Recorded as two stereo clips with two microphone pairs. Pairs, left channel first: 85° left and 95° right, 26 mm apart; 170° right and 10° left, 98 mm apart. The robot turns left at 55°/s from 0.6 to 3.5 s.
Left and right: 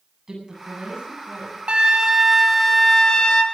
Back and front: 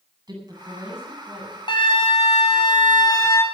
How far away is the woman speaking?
About 8.5 m.